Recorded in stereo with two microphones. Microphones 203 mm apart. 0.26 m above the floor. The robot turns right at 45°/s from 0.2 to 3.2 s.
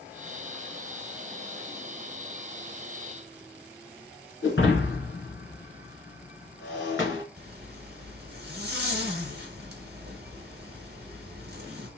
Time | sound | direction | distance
4.4 | breaking glass | 75° left (ahead or behind) | 1.8 m
7.4 | a zipper | 55° right (ahead or behind) | 0.9 m